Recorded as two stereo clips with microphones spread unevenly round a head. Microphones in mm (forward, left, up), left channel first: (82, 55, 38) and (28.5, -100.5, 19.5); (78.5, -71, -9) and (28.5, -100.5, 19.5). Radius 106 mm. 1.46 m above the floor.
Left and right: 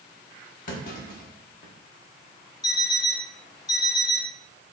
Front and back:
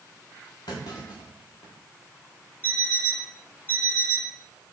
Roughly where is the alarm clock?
Behind left.